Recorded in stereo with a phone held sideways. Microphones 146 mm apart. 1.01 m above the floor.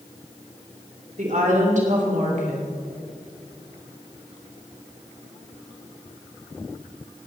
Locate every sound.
1.2 s a woman speaking: 65° right (ahead or behind), 3 m